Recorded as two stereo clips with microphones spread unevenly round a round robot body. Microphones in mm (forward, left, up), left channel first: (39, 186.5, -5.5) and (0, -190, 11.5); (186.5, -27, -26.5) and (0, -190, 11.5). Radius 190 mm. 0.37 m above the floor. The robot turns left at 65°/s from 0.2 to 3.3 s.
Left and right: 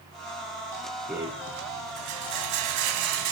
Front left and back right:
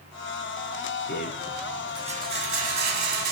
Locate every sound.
1.1 s a rattle: 5° right, 1.0 m; by 3.3 s 150° right, 1.0 m